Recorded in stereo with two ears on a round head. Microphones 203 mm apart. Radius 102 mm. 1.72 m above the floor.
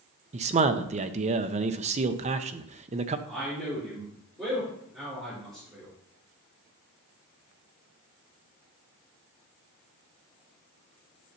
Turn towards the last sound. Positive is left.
turn(degrees=0)  # may be behind; listen again after turning